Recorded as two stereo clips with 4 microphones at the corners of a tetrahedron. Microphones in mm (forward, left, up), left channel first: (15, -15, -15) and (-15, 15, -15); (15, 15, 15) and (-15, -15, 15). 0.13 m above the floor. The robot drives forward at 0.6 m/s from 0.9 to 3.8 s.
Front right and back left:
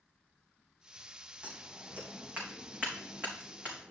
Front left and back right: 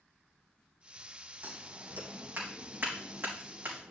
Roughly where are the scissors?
Behind.